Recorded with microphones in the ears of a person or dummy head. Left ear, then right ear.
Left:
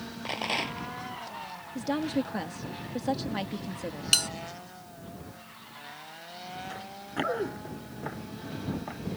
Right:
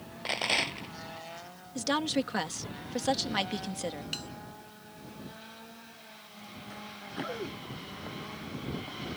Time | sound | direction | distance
0.2 | a rattle | 20° right (ahead or behind) | ?
1.8 | a woman speaking | 45° right (ahead or behind) | ?
4.1 | a bell | 45° left (ahead or behind) | ?
6.7 | running footsteps | 20° left (ahead or behind) | ?